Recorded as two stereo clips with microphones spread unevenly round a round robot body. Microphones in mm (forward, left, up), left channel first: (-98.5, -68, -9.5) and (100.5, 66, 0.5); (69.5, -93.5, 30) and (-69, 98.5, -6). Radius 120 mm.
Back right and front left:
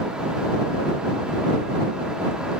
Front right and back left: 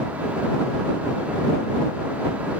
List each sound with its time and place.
Only background noise.